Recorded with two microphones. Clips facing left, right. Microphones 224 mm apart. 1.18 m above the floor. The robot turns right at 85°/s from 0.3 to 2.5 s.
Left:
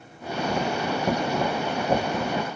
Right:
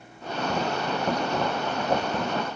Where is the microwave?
I don't hear a microwave.